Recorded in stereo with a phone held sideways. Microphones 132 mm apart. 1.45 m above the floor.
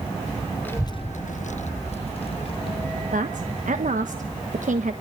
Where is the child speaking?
15° left (ahead or behind), 0.7 m; by 3.0 s 40° left (ahead or behind), 2.5 m.